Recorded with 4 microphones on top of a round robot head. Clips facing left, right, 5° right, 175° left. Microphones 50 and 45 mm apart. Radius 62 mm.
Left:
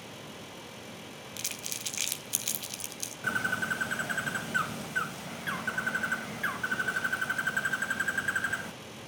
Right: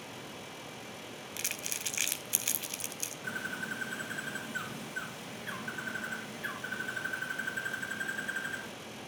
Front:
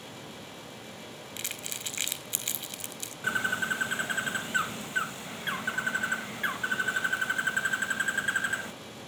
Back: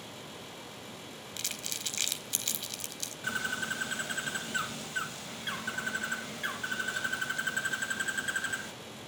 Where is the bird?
60° left, 0.6 m.